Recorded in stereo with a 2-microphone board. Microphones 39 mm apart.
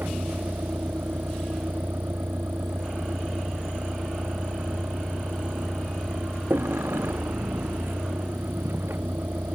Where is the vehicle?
65° right (ahead or behind).